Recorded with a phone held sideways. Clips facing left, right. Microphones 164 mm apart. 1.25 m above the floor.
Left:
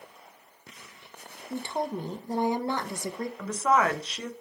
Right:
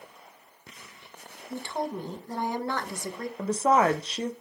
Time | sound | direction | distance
1.5 | a woman speaking | 20° left (ahead or behind) | 0.7 m
3.4 | a woman speaking | 30° right (ahead or behind) | 0.5 m